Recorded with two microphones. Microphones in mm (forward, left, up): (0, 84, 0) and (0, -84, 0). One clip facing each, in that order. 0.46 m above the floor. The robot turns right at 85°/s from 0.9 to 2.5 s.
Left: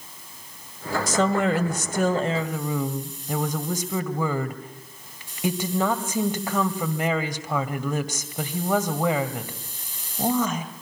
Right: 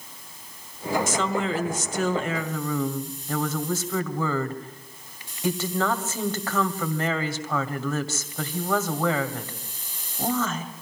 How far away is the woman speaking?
About 1.9 m.